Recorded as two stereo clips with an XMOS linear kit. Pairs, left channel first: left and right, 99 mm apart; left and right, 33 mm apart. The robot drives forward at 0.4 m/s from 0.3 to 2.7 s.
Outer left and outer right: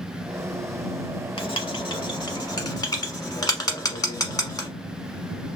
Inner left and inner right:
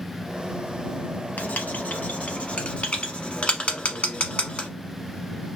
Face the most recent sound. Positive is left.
turn(degrees=40)  # may be behind; listen again after turning